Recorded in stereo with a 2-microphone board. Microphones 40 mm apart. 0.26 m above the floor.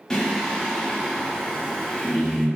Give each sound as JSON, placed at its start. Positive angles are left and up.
{"t": 0.1, "sound": "singing", "side_deg": 15, "distance_m": 0.9}